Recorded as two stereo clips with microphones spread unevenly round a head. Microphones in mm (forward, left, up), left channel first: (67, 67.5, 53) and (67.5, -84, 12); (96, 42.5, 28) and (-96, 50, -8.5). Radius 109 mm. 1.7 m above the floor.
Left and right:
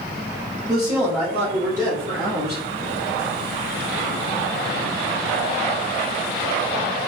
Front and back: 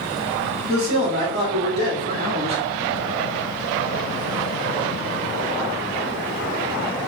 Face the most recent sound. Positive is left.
turn(degrees=-120)